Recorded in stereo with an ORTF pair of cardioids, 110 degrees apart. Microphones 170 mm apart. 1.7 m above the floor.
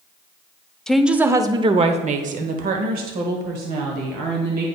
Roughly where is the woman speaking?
Ahead.